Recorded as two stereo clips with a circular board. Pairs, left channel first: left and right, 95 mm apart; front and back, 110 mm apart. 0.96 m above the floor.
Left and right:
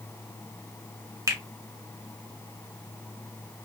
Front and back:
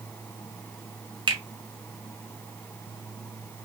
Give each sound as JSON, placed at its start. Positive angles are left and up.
{"t": 1.3, "sound": "a finger snap", "azimuth_deg": -140, "distance_m": 0.8}